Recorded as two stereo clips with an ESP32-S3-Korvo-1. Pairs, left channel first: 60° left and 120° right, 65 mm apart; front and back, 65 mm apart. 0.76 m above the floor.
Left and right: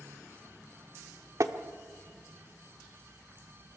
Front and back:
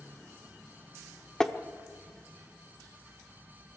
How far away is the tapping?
About 0.9 m.